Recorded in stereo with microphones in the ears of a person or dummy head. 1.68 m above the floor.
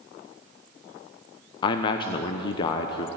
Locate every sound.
1.6 s a man speaking: 30° left (ahead or behind), 0.8 m